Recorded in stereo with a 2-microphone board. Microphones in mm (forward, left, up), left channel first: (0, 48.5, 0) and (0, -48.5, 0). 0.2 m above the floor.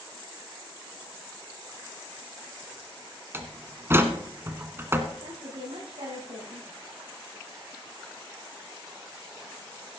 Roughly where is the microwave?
I don't hear a microwave.